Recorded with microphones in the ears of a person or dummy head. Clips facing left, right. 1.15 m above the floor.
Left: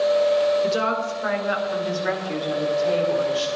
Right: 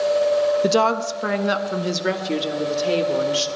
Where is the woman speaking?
50° right (ahead or behind), 0.5 m; by 3.5 s 35° right (ahead or behind), 1.8 m.